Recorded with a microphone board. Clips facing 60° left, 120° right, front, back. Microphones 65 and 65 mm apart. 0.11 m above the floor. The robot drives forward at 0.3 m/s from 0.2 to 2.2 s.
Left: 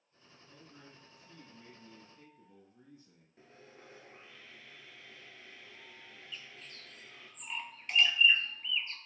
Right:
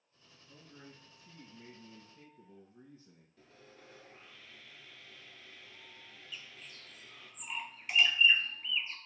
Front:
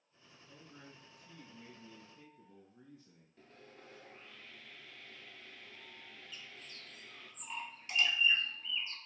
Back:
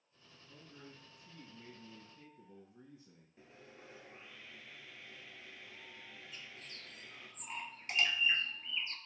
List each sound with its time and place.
0.5 s a man speaking: 70° right, 1.3 m; by 3.3 s 105° right, 1.3 m
3.4 s sawing: 110° left, 0.6 m
6.3 s a bird: 155° left, 0.6 m